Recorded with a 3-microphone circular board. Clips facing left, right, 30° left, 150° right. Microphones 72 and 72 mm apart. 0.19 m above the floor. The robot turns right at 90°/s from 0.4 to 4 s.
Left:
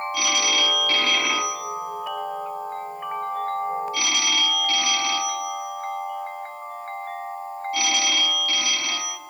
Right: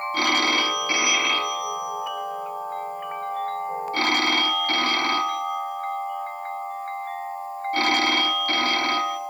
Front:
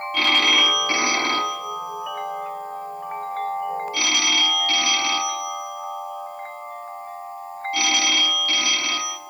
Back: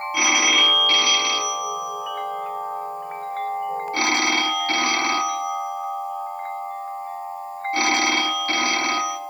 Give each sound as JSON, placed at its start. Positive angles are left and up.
{"t": 0.1, "sound": "a phone ringing", "azimuth_deg": -75, "distance_m": 0.9}